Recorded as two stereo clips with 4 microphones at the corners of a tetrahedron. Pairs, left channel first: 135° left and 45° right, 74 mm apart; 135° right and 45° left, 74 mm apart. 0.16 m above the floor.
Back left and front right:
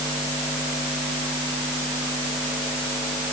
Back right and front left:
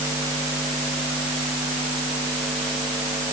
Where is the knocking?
I don't hear knocking.